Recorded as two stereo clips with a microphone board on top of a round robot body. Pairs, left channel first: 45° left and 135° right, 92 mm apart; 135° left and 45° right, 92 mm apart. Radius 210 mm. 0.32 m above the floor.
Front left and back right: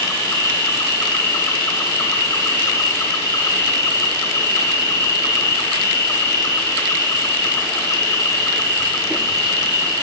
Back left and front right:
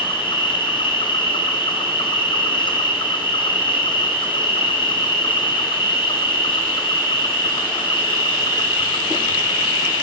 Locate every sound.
0.0 s an insect: 105° left, 1.1 m